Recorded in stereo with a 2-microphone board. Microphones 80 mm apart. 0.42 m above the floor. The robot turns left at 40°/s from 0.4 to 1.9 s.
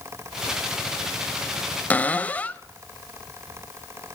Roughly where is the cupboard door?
Left.